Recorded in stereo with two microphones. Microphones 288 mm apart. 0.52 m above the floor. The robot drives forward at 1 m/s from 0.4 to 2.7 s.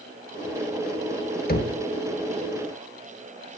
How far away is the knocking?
About 1.1 m.